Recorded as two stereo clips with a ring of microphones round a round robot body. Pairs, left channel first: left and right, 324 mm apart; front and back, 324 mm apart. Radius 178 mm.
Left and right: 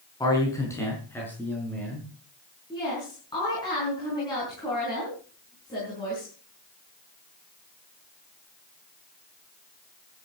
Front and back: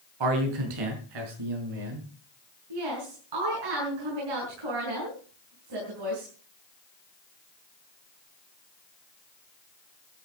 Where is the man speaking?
170° left, 4.5 m; by 2.1 s 175° left, 7 m.